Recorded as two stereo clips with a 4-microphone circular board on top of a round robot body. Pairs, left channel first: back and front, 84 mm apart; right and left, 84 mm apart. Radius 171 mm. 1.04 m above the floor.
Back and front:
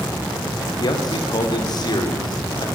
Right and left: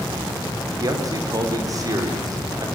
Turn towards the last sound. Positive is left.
turn(degrees=140)